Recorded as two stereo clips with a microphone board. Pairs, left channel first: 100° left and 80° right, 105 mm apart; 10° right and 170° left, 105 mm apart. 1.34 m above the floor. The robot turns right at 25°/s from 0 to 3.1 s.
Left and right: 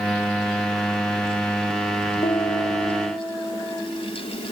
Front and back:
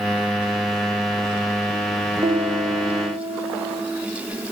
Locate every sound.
2.2 s a piano: 135° left, 1.5 m; by 3.8 s 160° left, 1.5 m